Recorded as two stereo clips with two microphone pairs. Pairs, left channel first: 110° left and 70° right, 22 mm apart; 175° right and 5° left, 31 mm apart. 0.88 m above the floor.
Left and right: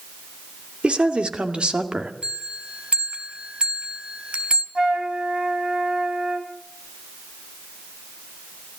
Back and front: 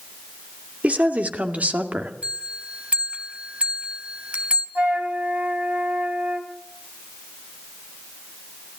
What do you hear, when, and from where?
0.8 s a woman speaking: 35° right, 2.5 m; by 2.1 s 25° right, 2.0 m
2.2 s a bell: 40° right, 2.5 m
4.8 s a flute: 35° right, 2.5 m